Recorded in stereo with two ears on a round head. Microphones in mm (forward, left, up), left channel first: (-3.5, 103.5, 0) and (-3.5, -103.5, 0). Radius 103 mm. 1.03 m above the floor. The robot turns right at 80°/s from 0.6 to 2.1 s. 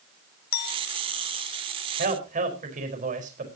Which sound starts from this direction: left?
A clink, at 0.5 s.